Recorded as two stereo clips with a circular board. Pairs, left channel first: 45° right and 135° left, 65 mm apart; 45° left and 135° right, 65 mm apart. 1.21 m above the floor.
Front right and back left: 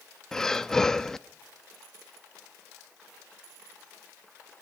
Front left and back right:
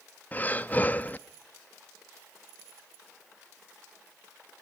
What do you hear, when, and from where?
0.3 s breathing: 25° left, 0.6 m